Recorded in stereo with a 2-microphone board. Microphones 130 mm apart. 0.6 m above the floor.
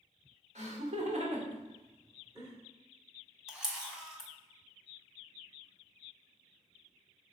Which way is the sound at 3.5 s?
5° right (ahead or behind).